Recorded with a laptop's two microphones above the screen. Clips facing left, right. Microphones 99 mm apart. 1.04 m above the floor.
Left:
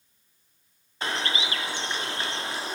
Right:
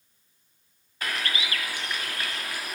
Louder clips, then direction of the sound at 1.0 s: Left 2 dB; 25° left (ahead or behind).